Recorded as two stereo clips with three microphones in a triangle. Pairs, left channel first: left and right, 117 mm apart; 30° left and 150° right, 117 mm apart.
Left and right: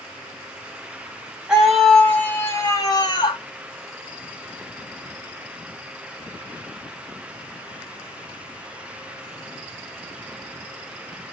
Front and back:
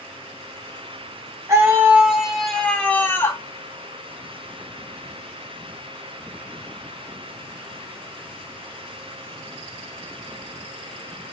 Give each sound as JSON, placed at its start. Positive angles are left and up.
{"t": 1.5, "sound": "a scream", "azimuth_deg": -165, "distance_m": 1.3}